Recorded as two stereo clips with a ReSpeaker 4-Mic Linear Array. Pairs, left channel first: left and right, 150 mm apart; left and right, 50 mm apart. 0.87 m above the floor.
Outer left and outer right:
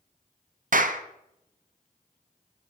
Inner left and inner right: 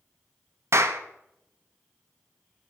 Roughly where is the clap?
Right.